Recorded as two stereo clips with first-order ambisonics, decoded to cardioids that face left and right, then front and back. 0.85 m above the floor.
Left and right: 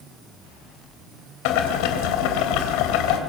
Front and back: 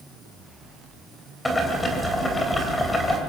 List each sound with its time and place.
1.4 s boiling: 80° left, 3 m